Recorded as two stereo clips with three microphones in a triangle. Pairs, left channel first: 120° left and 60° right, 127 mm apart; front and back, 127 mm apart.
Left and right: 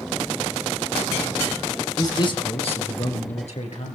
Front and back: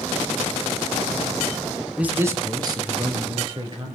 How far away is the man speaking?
About 1.6 m.